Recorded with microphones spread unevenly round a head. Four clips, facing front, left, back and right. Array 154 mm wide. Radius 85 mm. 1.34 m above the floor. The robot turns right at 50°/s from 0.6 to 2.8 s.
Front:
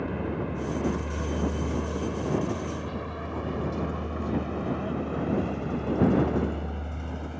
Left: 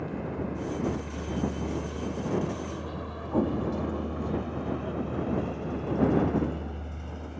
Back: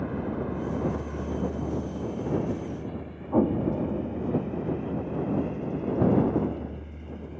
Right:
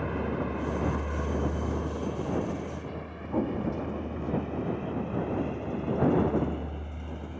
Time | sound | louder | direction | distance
0.0 | a vehicle | right 2 dB, even | 65° right | ?
3.3 | an explosion | left 2 dB, back 9 dB | 170° left | ?